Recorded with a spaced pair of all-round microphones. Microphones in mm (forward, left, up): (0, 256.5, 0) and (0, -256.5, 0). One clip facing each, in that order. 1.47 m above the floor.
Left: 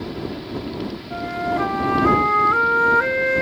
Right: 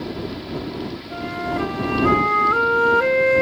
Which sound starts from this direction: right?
A flute, at 1.1 s.